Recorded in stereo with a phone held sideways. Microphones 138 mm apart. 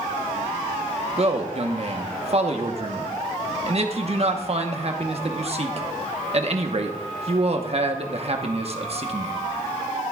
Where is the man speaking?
50° right (ahead or behind), 1.1 m.